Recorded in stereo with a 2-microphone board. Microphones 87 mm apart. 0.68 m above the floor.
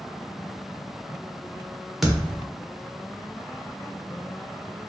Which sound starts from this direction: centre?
A thud, at 2.0 s.